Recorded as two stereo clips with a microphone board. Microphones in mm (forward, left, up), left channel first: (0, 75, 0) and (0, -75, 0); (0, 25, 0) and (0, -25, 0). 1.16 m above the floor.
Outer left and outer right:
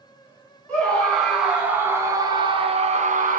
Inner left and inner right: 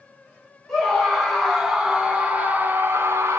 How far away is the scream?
About 1.4 m.